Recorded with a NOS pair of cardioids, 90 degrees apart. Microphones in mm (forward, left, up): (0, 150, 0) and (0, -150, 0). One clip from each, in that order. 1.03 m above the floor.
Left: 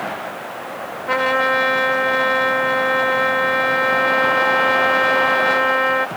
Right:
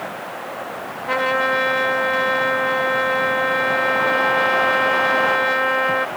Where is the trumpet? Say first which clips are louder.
Left 2 dB; 10° left.